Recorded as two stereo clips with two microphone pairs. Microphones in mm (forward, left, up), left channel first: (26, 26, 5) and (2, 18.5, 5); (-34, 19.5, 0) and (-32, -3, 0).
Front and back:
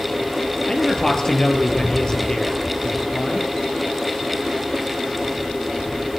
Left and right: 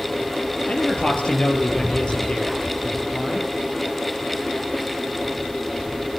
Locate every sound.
0.7 s a man speaking: 85° left, 3 m; by 3.5 s 55° left, 3.5 m